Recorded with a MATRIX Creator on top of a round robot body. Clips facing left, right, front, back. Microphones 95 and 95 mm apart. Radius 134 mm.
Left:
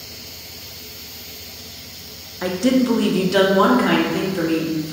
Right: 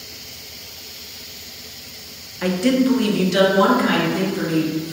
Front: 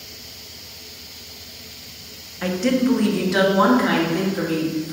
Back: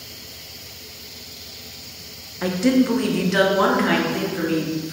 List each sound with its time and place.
2.4 s a woman speaking: 135° left, 0.7 m; by 4.9 s 65° left, 1.7 m